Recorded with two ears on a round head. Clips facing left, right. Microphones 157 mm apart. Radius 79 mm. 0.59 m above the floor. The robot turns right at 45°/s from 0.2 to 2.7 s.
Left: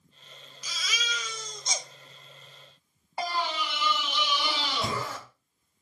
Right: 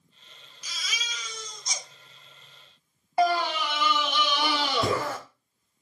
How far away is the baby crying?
About 1.0 m.